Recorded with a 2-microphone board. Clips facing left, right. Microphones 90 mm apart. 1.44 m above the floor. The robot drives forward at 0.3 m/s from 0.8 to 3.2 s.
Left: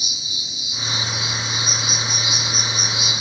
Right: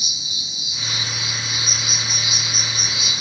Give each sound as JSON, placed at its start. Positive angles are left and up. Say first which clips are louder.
{"t": 0.0, "sound": "an insect", "louder": "even", "side_deg": 40, "distance_m": 1.8}